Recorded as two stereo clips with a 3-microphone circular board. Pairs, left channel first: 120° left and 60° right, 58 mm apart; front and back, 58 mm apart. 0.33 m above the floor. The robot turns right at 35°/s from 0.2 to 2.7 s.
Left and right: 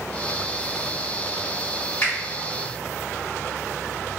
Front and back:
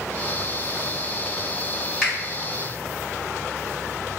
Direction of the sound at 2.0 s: 85° left.